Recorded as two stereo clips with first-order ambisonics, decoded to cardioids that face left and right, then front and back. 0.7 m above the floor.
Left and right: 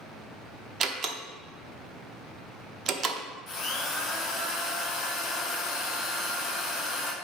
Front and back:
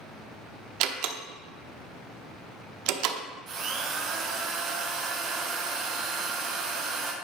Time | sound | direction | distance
0.8 | a door slam | 155° right | 0.7 m
3.5 | a drill | 145° left | 1.1 m